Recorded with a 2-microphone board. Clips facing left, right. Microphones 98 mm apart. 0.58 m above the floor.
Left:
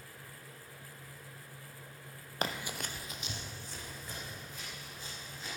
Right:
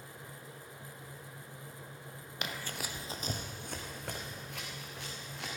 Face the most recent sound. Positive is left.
turn(degrees=-75)  # may be behind; listen again after turning